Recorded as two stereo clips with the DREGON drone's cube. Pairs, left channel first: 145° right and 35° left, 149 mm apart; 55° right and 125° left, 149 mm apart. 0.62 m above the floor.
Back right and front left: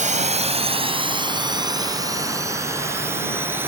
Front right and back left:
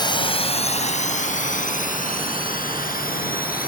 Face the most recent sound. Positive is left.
turn(degrees=-40)